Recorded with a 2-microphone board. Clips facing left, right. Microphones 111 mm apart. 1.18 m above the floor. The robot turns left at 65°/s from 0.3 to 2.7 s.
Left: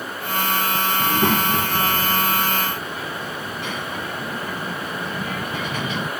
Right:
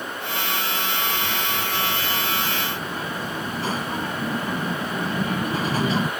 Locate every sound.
1.0 s a child speaking: 75° left; by 6.1 s 35° right